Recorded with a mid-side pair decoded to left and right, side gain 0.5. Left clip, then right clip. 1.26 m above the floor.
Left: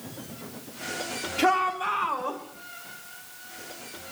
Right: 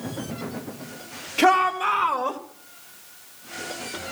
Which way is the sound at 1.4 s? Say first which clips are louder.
Right 5 dB; 65° right.